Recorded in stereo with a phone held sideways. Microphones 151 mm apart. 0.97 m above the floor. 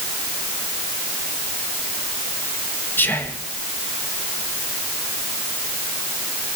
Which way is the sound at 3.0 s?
10° left (ahead or behind).